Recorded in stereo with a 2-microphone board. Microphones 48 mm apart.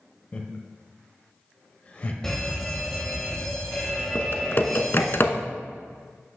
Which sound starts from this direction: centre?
A fire alarm, at 2.2 s.